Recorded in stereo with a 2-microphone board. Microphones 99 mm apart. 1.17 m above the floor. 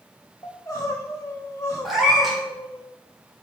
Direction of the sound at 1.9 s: 5° right (ahead or behind).